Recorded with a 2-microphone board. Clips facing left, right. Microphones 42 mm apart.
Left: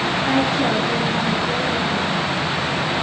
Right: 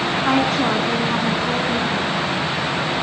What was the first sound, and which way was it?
A woman speaking, 75° right (ahead or behind).